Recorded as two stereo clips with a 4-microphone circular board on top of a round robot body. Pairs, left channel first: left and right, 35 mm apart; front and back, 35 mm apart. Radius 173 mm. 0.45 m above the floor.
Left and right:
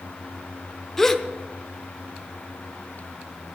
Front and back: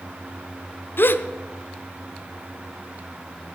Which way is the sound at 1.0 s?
10° left.